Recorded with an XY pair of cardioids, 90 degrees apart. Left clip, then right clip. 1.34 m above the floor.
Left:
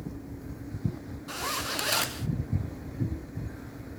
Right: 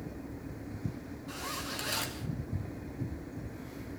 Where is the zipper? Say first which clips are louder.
Left 7 dB; 60° left, 0.6 m.